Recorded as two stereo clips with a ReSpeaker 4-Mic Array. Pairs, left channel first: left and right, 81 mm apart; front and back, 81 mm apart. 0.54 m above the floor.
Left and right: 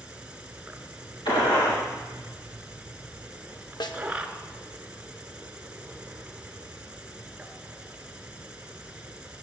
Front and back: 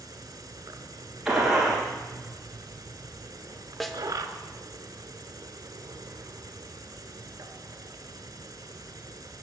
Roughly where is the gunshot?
Left.